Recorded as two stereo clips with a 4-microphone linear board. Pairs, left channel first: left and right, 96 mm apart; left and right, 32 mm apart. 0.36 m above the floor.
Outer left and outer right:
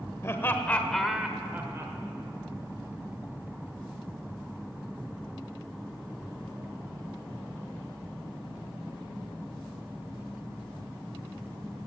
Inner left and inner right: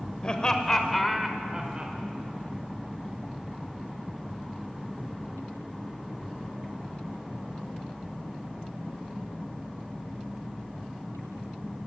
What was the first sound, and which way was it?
Laughter, 30° left (ahead or behind).